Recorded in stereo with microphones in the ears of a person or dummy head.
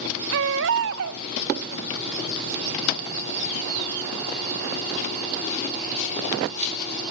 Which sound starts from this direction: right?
A baby crying, at 0.3 s.